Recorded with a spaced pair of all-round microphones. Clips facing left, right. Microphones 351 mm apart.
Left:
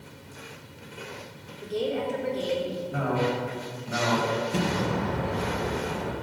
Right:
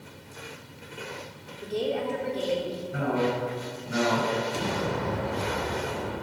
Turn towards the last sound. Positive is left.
turn(degrees=70)  # may be behind; listen again after turning